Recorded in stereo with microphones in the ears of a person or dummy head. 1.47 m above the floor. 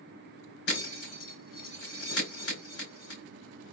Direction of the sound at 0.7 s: 65° left (ahead or behind).